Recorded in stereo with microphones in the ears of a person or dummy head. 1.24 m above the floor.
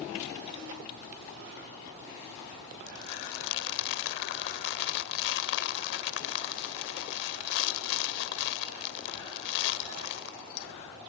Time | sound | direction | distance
2.9 | crumpling | 65° left (ahead or behind) | ?